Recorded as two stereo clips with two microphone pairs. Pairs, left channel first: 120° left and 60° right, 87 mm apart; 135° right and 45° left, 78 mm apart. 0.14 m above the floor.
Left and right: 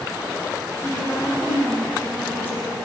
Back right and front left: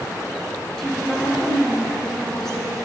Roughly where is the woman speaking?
Behind left.